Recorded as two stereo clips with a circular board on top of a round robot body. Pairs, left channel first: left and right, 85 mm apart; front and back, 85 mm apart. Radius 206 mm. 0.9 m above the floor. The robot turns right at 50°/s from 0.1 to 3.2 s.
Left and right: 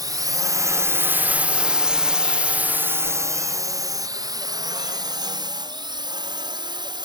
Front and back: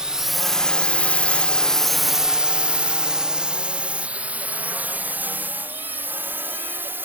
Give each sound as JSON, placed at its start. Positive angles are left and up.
{"t": 0.0, "sound": "a drone", "azimuth_deg": -100}